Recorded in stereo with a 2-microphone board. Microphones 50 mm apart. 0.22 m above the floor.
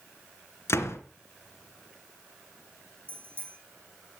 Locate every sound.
0.7 s a door slam: 60° left (ahead or behind), 2.5 m
3.1 s a bicycle bell: 45° right (ahead or behind), 6.5 m